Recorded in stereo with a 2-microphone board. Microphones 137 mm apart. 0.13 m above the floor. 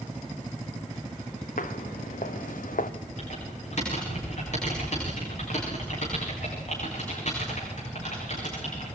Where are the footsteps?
80° left, 2 m.